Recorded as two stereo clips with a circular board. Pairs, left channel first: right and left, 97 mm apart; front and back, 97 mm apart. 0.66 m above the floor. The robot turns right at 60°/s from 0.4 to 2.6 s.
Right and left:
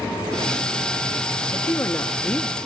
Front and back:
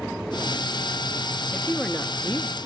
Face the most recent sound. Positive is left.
turn(degrees=-35)